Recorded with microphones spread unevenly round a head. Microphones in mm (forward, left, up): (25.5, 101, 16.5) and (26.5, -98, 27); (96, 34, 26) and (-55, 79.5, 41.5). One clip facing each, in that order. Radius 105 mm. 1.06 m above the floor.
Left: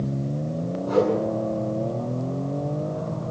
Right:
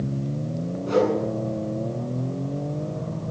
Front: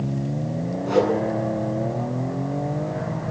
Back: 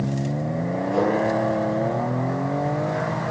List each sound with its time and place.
0.9 s a whoosh: 30° right, 9 m